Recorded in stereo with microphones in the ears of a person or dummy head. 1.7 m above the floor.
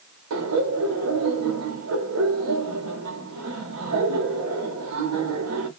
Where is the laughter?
90° right, 1.5 m.